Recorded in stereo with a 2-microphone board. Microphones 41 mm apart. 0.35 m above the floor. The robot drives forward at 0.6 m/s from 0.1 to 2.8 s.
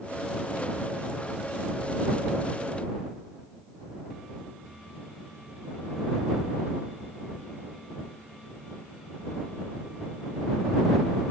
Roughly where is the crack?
No crack in this recording.